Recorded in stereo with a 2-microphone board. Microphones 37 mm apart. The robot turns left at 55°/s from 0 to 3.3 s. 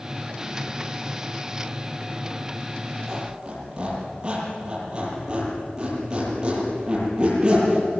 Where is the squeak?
15° right (ahead or behind), 8.5 m; by 7.9 s 25° right (ahead or behind), 8.5 m.